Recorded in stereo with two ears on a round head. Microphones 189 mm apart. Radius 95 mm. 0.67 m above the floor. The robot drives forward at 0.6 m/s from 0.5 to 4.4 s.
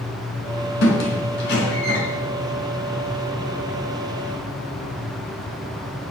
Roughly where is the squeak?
Left.